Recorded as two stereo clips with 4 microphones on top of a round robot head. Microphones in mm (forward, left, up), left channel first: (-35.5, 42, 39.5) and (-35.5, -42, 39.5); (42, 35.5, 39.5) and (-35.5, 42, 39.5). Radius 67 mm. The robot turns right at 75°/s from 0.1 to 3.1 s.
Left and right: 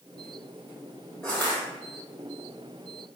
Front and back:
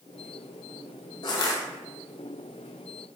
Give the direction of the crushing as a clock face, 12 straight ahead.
12 o'clock.